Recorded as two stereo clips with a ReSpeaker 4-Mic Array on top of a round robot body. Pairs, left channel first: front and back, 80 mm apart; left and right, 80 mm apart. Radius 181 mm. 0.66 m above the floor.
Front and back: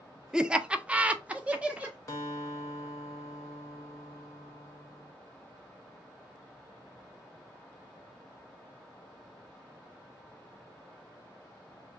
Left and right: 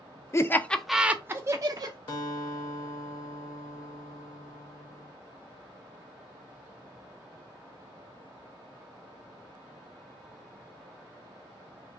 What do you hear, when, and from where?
0.3 s laughter: 105° left, 0.6 m; by 2.0 s 105° right, 0.8 m
2.1 s a guitar: 55° left, 0.7 m